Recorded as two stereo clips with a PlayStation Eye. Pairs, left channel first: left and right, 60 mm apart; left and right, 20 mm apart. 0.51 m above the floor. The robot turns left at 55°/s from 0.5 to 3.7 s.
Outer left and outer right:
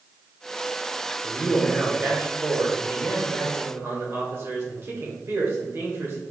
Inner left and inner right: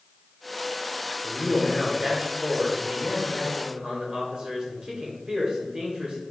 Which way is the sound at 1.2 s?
5° left.